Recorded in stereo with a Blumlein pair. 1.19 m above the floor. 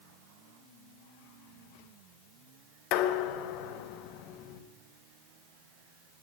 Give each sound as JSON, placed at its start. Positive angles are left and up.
{"t": 2.9, "sound": "dishes clattering", "azimuth_deg": 40, "distance_m": 0.9}